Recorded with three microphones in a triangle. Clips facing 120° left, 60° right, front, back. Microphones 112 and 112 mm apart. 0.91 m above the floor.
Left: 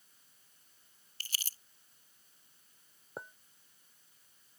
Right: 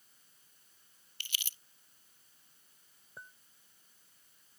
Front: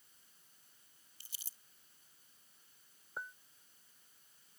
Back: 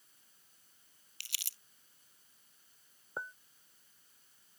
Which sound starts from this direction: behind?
Crumpling, at 1.2 s.